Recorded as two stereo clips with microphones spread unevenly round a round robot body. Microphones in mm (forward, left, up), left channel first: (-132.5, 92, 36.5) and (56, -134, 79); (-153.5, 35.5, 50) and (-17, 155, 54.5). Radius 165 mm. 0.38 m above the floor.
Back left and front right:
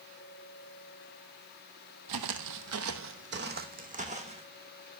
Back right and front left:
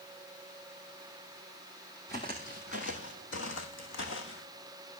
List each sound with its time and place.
2.1 s footsteps: 55° right, 1.1 m; by 4.5 s 120° right, 1.9 m